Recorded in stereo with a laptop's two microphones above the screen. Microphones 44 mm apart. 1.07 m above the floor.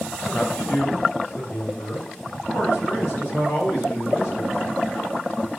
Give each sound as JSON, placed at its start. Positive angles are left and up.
{"t": 0.3, "sound": "a man speaking", "side_deg": 70, "distance_m": 2.5}